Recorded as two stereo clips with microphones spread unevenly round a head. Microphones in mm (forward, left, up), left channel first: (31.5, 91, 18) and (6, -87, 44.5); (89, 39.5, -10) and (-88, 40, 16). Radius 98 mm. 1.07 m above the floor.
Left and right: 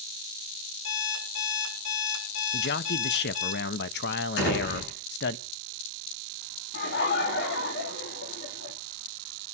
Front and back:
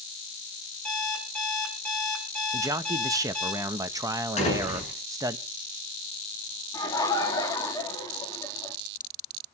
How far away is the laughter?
About 3 m.